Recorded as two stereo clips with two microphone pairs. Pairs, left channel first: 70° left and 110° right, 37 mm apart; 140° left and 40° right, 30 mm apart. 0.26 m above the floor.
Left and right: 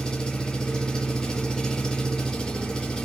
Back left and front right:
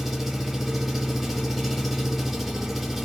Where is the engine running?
30° left, 0.9 m.